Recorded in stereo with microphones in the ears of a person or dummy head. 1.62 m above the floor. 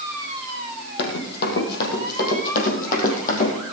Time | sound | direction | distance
1.0 | running footsteps | 55° left (ahead or behind) | 3.5 m